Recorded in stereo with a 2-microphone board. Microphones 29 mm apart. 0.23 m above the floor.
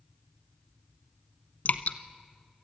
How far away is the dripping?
About 0.9 m.